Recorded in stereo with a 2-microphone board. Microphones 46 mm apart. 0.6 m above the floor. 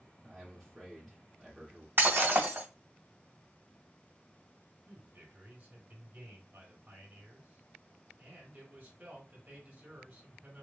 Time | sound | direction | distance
0.2 | a man speaking | 5° left (ahead or behind) | 1.3 m
2.0 | breaking glass | 50° right (ahead or behind) | 1.9 m
4.9 | a man speaking | 45° right (ahead or behind) | 2 m